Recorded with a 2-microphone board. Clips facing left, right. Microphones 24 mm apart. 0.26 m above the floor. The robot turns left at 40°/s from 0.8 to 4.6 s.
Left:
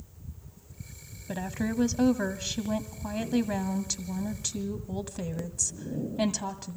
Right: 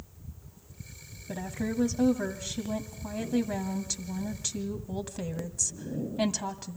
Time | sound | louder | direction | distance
1.3 | a woman speaking | left 2 dB | 130° left | 1.8 m